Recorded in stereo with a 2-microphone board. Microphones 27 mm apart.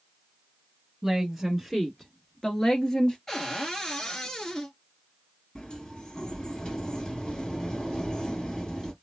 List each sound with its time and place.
1.0 s a woman speaking: 15° right (ahead or behind), 1.4 m; by 3.2 s 25° left (ahead or behind), 1.8 m
3.3 s a cupboard door: 20° left (ahead or behind), 1.5 m
5.5 s a sliding door: 25° left (ahead or behind), 2.5 m